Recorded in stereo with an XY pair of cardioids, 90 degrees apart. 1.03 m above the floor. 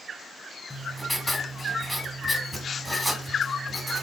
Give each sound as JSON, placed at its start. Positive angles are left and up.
{"t": 0.7, "sound": "writing", "azimuth_deg": 5, "distance_m": 1.3}